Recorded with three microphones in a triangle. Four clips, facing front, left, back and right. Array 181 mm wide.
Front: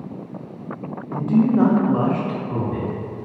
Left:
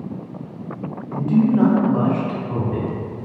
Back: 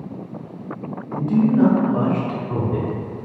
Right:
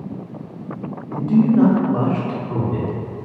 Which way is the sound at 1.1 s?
5° right.